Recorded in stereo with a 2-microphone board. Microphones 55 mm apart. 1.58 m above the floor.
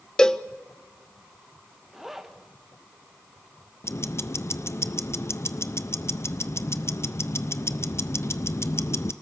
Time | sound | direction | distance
0.2 | a cowbell | 15° left (ahead or behind) | 0.5 m
1.9 | a zipper | 5° right (ahead or behind) | 1.4 m
3.8 | ticking | 55° left (ahead or behind) | 0.7 m